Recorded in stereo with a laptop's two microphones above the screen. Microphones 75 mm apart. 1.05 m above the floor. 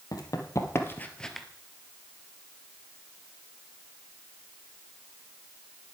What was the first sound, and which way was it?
Running footsteps, 55° left (ahead or behind).